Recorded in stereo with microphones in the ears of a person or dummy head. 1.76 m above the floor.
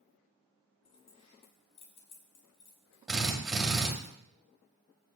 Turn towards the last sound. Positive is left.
turn(degrees=-5)  # may be behind; listen again after turning